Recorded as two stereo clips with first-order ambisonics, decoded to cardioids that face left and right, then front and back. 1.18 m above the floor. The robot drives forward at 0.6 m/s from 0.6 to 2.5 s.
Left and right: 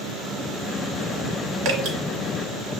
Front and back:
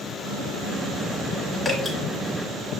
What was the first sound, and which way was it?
Dripping, 85° right.